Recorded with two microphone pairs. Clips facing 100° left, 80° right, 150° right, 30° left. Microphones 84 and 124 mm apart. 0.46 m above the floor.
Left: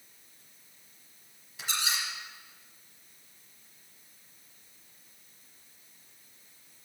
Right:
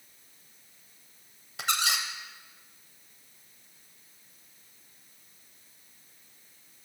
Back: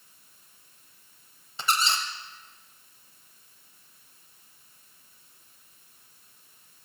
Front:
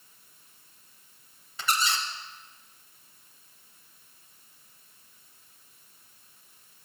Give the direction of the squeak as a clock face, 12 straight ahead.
3 o'clock.